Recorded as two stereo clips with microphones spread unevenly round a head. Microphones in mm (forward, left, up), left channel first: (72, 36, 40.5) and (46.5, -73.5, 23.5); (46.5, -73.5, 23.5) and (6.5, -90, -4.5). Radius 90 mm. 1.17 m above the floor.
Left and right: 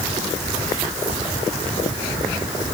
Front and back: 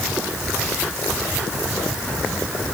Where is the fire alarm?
I don't hear a fire alarm.